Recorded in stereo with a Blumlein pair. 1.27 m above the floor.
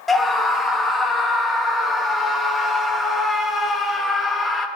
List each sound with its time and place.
0.1 s a scream: 10° left, 2 m